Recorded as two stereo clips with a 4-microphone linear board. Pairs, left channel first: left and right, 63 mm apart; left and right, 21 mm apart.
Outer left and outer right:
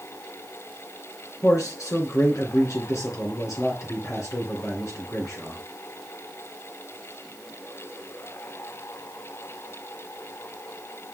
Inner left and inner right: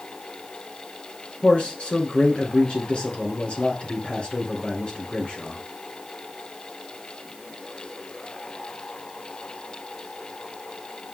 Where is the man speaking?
55° left (ahead or behind), 3 m.